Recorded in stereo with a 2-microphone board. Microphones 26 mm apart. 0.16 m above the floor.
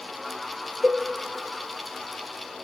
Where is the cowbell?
40° right (ahead or behind), 0.7 m.